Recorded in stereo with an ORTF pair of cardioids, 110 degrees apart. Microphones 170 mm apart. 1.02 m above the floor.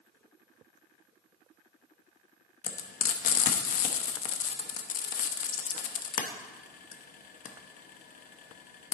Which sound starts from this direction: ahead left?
Frying, at 2.6 s.